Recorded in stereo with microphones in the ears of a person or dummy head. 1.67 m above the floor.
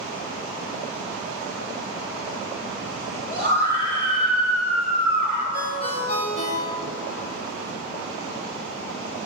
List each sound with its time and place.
3.3 s a scream: 50° left (ahead or behind), 3 m
5.5 s a ringtone: 40° left (ahead or behind), 1.6 m